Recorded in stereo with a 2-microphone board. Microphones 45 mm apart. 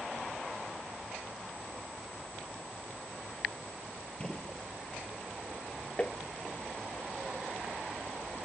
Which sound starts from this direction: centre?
A gunshot, at 4.2 s.